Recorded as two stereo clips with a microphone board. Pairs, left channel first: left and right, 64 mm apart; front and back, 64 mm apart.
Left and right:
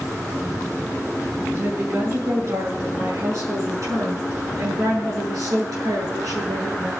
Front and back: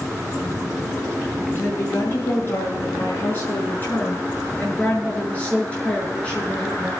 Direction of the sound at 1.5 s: 45° right.